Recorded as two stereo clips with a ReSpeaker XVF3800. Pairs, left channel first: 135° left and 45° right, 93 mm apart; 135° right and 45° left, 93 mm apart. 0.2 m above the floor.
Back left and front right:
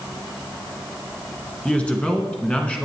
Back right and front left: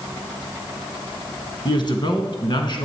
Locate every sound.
1.6 s a man speaking: 150° right, 1.7 m